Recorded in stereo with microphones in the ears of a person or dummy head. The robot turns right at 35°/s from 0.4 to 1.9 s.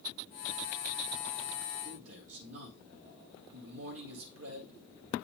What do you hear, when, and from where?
1.9 s a man speaking: 75° right (ahead or behind), 3 m